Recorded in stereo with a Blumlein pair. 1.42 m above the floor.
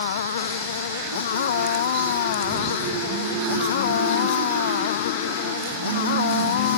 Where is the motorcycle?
60° left.